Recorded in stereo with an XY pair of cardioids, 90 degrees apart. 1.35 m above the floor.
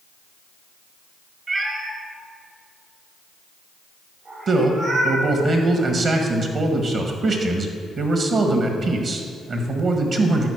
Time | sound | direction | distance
1.5 | a cat meowing | 45° right | 1.8 m
4.5 | a man speaking | 55° right | 1.7 m